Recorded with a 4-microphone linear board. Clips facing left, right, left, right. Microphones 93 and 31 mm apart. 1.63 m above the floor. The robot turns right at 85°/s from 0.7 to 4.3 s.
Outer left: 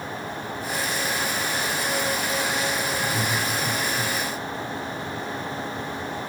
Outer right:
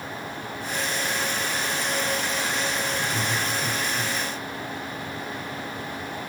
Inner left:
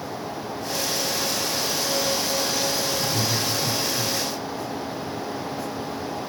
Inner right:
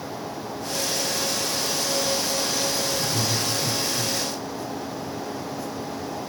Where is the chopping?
No chopping in this recording.